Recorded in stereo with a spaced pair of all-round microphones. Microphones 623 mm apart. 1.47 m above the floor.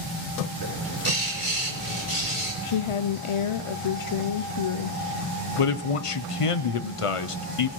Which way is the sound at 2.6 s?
55° left (ahead or behind).